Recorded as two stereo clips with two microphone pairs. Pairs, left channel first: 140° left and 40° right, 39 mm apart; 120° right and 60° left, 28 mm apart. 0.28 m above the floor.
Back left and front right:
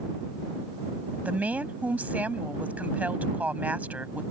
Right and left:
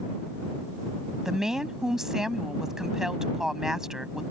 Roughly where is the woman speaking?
Ahead.